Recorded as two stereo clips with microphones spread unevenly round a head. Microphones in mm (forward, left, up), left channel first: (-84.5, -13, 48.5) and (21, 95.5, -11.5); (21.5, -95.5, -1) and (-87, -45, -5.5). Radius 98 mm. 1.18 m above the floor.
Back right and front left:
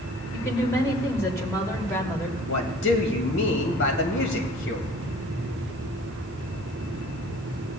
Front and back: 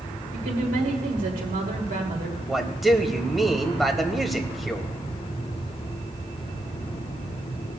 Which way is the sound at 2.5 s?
115° right.